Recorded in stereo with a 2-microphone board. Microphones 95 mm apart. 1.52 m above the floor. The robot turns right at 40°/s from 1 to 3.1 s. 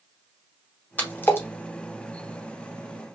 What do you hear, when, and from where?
1.0 s a splash: 15° left (ahead or behind), 0.8 m; by 1.5 s 25° left (ahead or behind), 0.8 m